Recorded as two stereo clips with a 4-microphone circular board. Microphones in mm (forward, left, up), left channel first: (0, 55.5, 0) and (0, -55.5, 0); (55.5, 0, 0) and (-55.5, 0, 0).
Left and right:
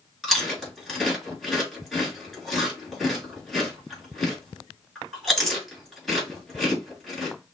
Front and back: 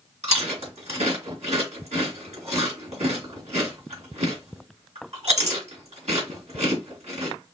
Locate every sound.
0.2 s chewing: 175° right, 3.5 m